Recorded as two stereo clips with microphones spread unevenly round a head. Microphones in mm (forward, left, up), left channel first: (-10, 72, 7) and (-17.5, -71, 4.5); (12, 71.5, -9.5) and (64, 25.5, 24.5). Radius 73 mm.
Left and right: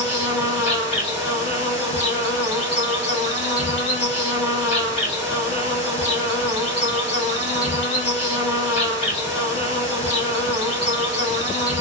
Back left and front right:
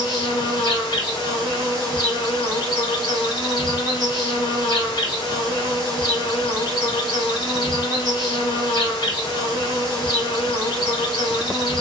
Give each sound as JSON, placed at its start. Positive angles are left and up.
{"t": 0.0, "sound": "an insect", "azimuth_deg": 130, "distance_m": 2.0}